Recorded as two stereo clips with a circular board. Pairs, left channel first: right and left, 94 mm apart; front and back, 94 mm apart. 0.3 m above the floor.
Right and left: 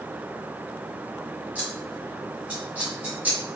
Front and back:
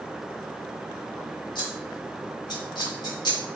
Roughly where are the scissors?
Ahead.